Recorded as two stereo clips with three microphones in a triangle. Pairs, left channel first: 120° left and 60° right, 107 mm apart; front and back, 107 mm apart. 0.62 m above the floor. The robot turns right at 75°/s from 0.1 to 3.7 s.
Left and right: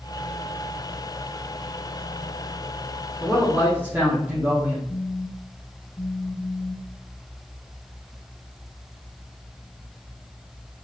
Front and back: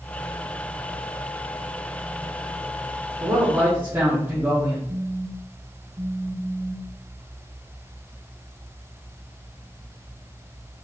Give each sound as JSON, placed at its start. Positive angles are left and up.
{"t": 3.2, "sound": "a man speaking", "azimuth_deg": -160, "distance_m": 1.3}
{"t": 4.9, "sound": "a phone buzzing", "azimuth_deg": 180, "distance_m": 0.6}